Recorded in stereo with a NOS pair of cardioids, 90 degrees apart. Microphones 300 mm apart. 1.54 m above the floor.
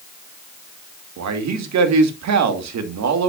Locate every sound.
1.2 s a man speaking: 65° right, 2 m